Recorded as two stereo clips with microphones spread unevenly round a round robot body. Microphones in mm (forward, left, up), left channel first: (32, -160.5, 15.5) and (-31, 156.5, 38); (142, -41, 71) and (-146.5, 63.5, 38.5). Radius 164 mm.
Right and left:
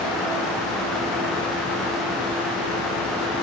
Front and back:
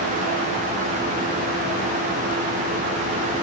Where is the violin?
I don't hear a violin.